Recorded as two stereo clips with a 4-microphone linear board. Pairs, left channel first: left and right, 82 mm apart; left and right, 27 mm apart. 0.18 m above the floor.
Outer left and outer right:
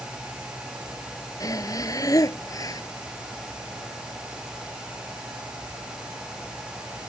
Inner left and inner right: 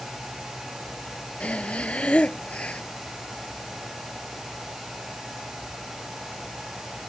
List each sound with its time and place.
1.4 s breathing: 45° left (ahead or behind)